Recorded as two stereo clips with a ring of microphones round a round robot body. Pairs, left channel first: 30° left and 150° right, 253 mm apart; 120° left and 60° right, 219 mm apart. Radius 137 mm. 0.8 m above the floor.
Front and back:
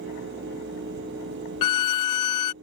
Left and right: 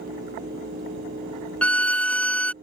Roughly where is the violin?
Ahead left.